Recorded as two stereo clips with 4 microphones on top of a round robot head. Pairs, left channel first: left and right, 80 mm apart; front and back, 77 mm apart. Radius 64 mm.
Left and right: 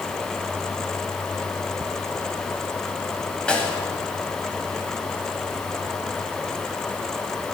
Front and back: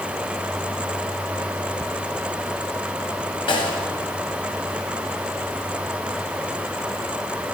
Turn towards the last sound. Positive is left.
turn(degrees=10)